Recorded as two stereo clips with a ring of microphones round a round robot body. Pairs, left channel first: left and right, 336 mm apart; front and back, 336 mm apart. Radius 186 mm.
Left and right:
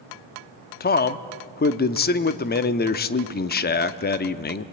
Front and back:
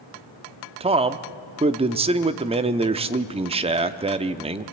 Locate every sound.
0.8 s a man speaking: 120° left, 0.7 m